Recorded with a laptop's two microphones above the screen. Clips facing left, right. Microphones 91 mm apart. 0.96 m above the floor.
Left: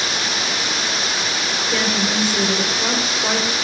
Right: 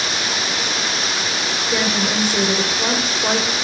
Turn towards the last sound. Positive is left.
turn(degrees=-15)  # may be behind; listen again after turning